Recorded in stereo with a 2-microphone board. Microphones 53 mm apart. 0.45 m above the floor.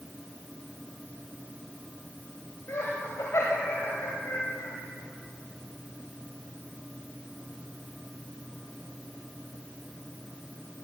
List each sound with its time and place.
2.7 s laughter: 65° left (ahead or behind), 2 m